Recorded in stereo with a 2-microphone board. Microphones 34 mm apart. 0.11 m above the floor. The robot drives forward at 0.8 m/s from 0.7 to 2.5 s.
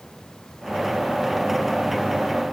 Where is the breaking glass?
No breaking glass in this recording.